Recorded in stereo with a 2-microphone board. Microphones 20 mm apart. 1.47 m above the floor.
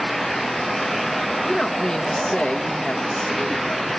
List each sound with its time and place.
1.4 s a woman speaking: 15° left (ahead or behind), 1.3 m; by 3.9 s 85° left, 3 m